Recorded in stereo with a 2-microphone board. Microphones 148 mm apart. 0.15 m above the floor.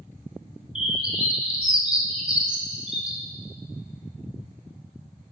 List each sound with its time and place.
0.8 s a bird: 5° right (ahead or behind), 0.7 m